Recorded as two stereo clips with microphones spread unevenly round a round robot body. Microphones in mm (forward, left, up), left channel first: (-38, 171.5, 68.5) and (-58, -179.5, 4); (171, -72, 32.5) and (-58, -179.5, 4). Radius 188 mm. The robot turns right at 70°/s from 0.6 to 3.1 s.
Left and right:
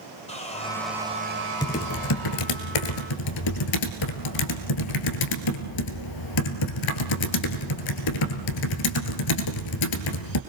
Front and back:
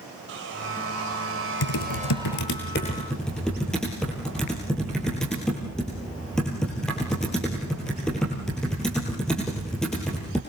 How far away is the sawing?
About 2.5 m.